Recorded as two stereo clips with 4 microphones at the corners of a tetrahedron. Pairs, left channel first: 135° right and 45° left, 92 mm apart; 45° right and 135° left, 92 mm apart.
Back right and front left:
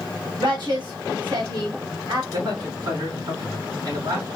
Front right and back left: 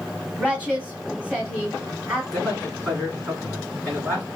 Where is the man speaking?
55° left, 3 m.